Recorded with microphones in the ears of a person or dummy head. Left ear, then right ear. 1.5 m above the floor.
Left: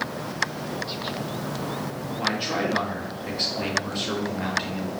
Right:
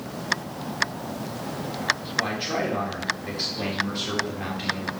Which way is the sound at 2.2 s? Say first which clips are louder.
Even; 10° left (ahead or behind).